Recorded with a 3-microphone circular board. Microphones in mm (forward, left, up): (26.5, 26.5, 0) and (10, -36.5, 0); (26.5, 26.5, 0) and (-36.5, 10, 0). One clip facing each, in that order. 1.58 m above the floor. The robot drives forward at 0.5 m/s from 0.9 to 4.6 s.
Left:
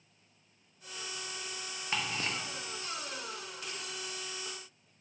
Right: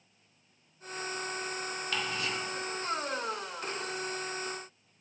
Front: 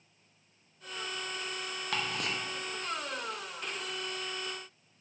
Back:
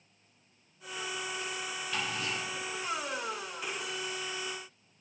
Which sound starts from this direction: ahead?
Ticking, at 1.9 s.